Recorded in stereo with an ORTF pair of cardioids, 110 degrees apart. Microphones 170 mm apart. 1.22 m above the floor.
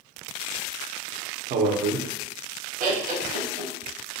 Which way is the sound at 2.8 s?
55° right.